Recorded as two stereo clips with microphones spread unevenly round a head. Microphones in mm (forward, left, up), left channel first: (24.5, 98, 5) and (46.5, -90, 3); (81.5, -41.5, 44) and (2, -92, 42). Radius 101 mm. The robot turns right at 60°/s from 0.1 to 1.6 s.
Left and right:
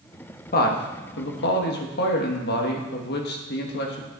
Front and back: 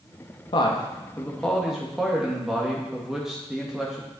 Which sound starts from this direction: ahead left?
A man speaking, at 0.5 s.